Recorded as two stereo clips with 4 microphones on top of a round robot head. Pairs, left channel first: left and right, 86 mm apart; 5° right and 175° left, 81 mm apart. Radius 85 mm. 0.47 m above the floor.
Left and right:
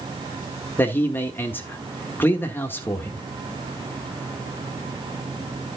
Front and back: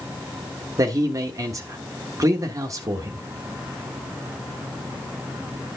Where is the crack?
No crack in this recording.